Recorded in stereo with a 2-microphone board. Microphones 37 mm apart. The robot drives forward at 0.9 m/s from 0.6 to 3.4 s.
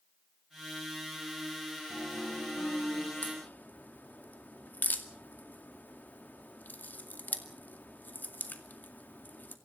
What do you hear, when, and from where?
1.9 s a piano: 85° left, 9.5 m
3.2 s a crack: 55° left (ahead or behind), 2 m; by 9.6 s 50° left (ahead or behind), 2 m